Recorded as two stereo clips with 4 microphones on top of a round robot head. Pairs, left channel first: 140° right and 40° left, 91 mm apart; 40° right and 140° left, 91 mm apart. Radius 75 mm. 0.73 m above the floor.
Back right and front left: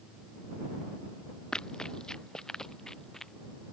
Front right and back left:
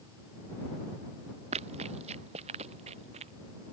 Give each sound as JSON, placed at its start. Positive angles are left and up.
{"t": 1.5, "sound": "running footsteps", "azimuth_deg": 140}